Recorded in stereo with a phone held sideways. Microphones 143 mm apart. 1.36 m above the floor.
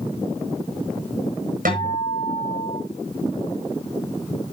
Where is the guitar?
80° right, 8 m.